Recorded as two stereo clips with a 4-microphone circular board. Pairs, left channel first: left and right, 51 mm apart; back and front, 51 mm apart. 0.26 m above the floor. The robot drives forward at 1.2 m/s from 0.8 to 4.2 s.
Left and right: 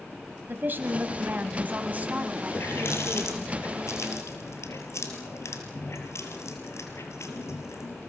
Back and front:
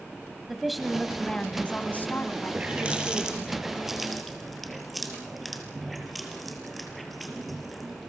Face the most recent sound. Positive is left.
turn(degrees=90)